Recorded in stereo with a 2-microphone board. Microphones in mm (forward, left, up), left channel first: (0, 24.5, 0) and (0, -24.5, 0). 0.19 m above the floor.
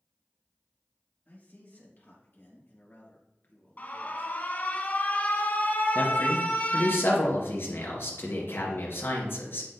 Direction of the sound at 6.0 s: 60° left (ahead or behind).